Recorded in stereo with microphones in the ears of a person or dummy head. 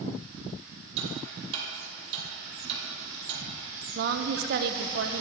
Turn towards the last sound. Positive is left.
turn(degrees=-50)  # may be behind; listen again after turning